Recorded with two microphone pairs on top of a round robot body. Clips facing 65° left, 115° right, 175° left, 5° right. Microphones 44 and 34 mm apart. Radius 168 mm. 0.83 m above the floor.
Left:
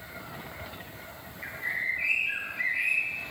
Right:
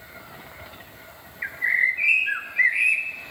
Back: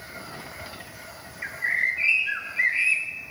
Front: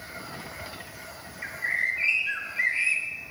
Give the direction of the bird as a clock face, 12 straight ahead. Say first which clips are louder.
Right 10 dB, back 3 dB; 4 o'clock.